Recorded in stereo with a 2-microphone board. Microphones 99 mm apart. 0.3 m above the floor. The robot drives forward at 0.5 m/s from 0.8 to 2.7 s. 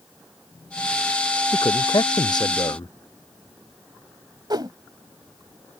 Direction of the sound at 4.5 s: 50° right (ahead or behind).